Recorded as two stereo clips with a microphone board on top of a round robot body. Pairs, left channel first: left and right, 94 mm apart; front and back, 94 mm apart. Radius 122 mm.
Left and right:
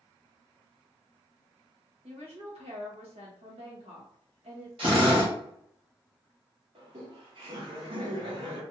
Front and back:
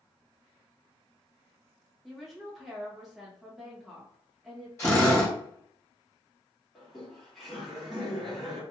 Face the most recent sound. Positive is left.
turn(degrees=-90)